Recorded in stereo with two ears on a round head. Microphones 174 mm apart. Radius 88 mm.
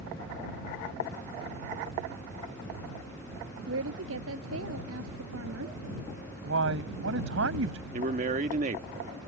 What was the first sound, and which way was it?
A woman speaking, 80° right.